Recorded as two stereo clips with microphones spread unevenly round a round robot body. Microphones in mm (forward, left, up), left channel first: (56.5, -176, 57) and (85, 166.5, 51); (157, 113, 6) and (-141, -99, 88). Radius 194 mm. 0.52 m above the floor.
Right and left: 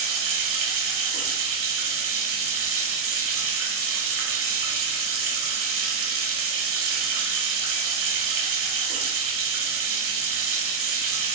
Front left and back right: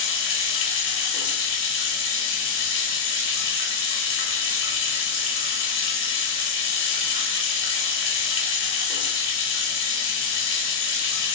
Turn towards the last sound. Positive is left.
turn(degrees=55)